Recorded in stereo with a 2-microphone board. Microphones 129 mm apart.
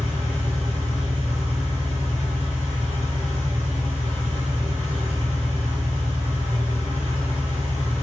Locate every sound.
0.0 s an engine running: 20° left (ahead or behind), 1.8 m